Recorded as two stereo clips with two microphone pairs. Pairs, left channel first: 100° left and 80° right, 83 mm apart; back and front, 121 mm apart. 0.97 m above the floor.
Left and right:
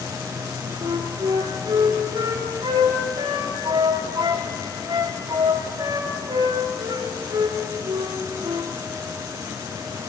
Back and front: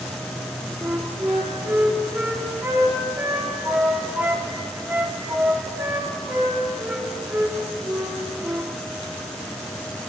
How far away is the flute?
About 2.5 m.